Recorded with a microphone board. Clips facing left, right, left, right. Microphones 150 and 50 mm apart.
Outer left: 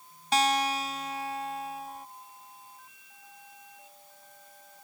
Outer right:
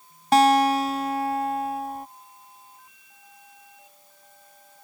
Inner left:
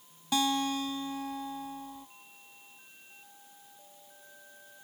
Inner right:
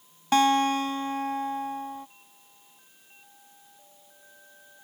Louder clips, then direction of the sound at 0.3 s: Outer right 9 dB, inner right 8 dB; 55° right (ahead or behind).